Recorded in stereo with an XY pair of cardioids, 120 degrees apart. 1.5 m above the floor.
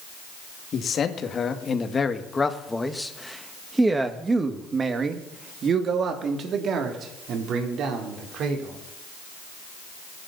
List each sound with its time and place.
0.7 s a man speaking: 50° left, 2.5 m; by 8.8 s 65° right, 4.5 m